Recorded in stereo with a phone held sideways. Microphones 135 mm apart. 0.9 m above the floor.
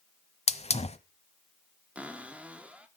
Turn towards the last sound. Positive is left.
turn(degrees=-10)  # may be behind; listen again after turning